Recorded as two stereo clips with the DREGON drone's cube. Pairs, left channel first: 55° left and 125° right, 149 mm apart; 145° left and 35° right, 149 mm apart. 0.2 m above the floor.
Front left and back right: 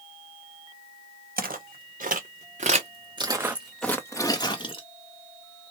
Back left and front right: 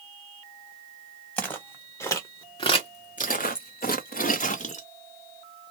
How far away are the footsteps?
About 1.5 m.